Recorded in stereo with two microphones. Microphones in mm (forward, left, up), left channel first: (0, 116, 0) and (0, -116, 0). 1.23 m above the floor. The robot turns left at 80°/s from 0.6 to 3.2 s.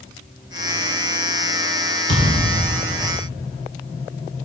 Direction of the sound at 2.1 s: 55° right (ahead or behind).